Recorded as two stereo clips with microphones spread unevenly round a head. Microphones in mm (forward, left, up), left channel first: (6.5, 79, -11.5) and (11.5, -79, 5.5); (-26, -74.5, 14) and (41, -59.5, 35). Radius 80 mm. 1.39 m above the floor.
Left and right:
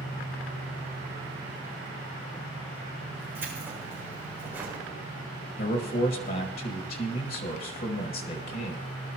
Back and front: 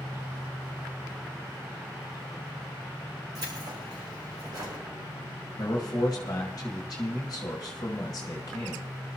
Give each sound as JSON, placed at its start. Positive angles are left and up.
{"t": 3.4, "sound": "keys jangling", "azimuth_deg": -10, "distance_m": 5.0}
{"t": 5.6, "sound": "a man speaking", "azimuth_deg": 130, "distance_m": 1.3}